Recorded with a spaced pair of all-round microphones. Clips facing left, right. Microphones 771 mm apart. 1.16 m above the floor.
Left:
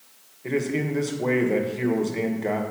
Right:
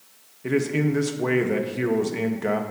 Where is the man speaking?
50° right (ahead or behind), 0.6 m.